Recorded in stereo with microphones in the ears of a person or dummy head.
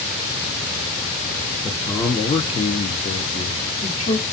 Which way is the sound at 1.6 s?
10° left (ahead or behind).